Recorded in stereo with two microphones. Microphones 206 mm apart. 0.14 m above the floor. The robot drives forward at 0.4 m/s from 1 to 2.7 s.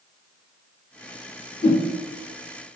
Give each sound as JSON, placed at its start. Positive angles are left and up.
{"t": 1.6, "sound": "a whoosh", "side_deg": 30, "distance_m": 1.2}